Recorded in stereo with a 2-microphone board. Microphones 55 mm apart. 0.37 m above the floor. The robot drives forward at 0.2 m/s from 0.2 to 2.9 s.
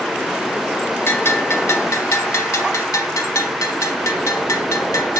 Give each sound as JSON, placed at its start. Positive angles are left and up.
{"t": 1.1, "sound": "a bell", "side_deg": 55, "distance_m": 0.7}